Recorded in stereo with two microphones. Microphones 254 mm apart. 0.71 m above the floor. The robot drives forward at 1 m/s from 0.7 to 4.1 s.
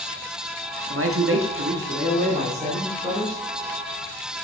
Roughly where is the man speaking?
Right.